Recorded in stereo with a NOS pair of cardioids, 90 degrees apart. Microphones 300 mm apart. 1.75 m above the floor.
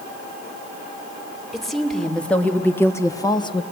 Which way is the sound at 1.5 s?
Straight ahead.